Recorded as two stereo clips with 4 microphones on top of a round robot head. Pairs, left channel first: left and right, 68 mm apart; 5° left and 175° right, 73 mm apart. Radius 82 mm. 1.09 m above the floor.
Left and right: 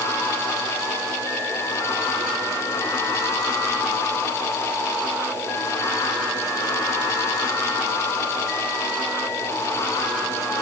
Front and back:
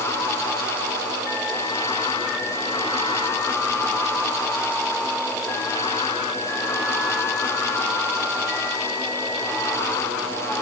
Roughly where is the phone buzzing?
I don't hear a phone buzzing.